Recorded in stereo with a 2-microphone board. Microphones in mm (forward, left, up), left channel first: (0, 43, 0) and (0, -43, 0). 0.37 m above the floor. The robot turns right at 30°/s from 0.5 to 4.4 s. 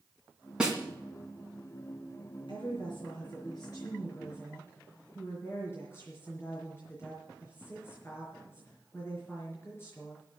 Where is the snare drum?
10° right (ahead or behind), 1.9 m; by 0.8 s 5° right (ahead or behind), 1.9 m.